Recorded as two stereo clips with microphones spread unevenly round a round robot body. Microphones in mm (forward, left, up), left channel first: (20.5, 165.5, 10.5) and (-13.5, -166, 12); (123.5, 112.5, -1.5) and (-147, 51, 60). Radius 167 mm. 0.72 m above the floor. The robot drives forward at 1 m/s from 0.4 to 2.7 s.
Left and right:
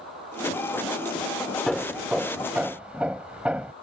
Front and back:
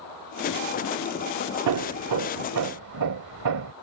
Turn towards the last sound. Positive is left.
turn(degrees=175)